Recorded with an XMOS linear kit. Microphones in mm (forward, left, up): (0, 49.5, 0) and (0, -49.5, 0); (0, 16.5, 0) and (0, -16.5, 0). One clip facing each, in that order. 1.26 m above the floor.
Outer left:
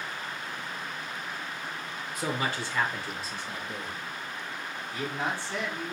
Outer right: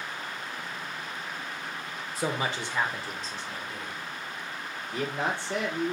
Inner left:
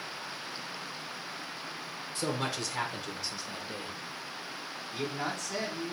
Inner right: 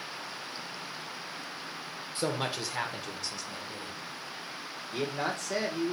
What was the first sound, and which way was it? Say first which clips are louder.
A man speaking: outer right 1 dB, inner right 1 dB; 35° right (ahead or behind).